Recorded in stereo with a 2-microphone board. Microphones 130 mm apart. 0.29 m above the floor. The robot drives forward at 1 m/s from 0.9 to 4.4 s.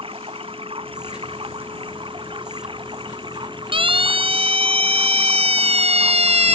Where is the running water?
45° right (ahead or behind); by 6.5 s 40° right (ahead or behind).